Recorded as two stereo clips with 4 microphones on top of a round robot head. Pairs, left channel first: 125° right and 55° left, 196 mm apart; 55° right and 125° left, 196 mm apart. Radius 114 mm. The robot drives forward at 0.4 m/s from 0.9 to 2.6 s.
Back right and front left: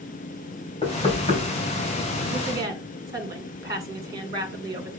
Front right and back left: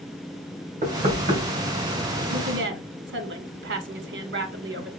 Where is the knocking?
175° left, 3.5 m.